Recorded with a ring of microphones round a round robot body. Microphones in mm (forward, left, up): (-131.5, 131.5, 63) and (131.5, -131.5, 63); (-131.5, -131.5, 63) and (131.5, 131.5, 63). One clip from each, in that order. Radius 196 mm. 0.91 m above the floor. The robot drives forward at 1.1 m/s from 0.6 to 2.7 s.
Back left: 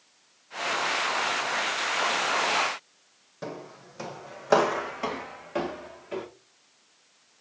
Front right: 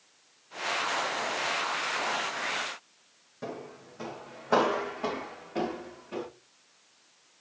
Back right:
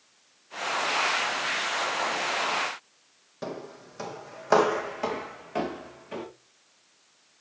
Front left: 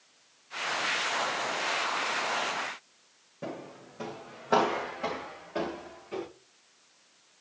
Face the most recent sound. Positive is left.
turn(degrees=175)